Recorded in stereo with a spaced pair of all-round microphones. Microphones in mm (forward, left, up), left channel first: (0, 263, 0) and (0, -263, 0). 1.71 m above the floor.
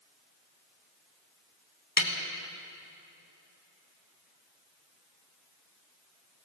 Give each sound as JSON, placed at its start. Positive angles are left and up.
{"t": 2.0, "sound": "a snare drum", "side_deg": 35, "distance_m": 1.9}